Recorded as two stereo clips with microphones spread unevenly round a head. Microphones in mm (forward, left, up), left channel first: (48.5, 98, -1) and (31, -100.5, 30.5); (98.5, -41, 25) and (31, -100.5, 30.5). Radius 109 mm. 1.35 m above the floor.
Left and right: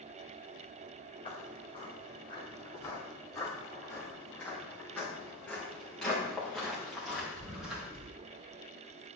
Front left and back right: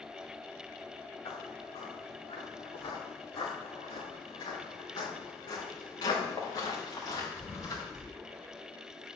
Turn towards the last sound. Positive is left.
turn(degrees=-10)